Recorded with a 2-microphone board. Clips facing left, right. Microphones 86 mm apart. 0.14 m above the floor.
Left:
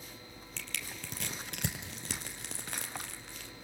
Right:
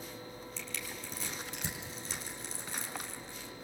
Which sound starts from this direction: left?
Crushing, at 0.6 s.